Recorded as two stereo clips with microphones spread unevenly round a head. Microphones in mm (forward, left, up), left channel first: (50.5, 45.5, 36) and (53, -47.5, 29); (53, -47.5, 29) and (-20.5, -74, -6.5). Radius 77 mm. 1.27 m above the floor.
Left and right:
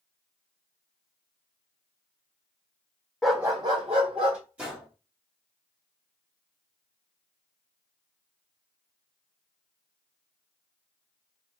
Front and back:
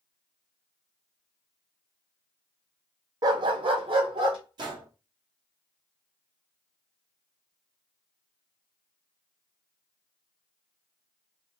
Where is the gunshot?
165° right, 1.4 m.